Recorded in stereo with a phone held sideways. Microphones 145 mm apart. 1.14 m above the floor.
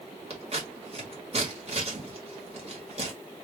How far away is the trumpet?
I don't hear a trumpet.